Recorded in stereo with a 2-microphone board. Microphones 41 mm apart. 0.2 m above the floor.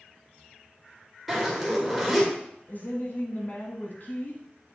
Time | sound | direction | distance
1.3 | a zipper | 5° right (ahead or behind) | 2.5 m
2.7 | a woman speaking | 50° left (ahead or behind) | 1.5 m